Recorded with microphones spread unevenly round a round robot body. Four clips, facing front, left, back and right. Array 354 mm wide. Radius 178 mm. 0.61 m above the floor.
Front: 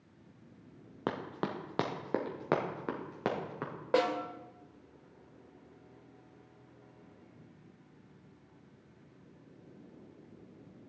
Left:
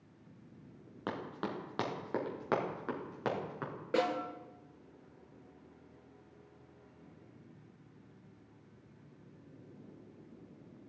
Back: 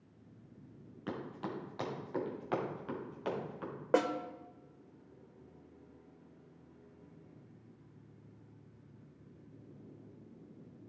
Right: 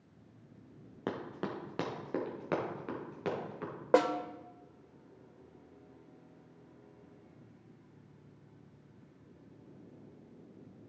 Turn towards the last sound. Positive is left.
turn(degrees=-75)